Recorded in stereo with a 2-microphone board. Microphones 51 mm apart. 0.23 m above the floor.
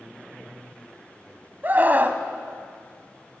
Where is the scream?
35° right (ahead or behind), 1.3 m.